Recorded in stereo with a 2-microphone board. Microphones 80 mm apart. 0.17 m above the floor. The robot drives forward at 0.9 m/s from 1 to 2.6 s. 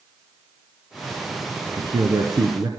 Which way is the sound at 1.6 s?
55° right (ahead or behind).